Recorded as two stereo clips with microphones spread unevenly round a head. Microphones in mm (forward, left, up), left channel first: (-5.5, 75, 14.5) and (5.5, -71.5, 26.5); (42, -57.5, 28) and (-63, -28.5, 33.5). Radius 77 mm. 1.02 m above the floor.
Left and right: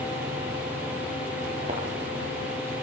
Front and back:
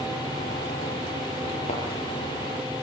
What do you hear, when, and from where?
1.7 s a thud: 35° right, 6.5 m